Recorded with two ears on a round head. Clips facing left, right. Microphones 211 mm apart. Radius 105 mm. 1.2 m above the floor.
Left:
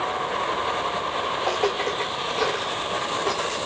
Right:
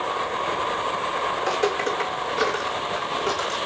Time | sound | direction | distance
1.4 | footsteps | 25° right (ahead or behind) | 3.5 m